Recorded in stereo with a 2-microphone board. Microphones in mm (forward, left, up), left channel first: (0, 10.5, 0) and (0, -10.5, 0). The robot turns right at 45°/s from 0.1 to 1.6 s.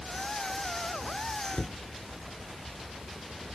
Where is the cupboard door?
30° left (ahead or behind).